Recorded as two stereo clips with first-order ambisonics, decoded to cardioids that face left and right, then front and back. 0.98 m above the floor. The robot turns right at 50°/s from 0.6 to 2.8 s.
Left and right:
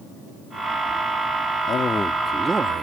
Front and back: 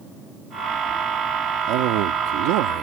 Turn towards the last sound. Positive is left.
turn(degrees=-155)